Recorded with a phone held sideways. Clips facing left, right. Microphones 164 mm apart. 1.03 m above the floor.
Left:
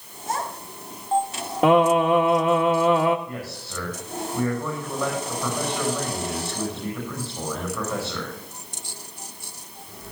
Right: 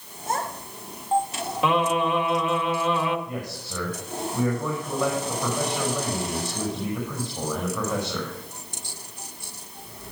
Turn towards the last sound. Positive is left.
turn(degrees=-15)  # may be behind; listen again after turning